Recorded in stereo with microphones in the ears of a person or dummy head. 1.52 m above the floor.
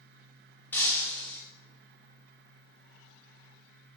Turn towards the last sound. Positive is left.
turn(degrees=15)  # may be behind; listen again after turning